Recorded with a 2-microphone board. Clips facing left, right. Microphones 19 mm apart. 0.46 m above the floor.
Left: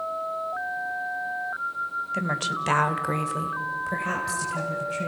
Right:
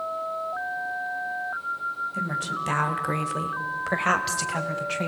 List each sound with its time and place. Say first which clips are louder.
2.1 s a woman speaking: left 1 dB; 40° left (ahead or behind), 2.0 m; by 5.1 s 65° right (ahead or behind), 3 m